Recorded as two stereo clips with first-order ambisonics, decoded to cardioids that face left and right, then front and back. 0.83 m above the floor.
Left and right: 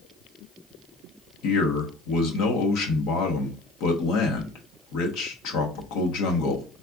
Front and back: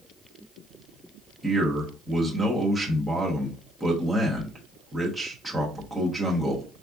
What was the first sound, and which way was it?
A man speaking, 90° left.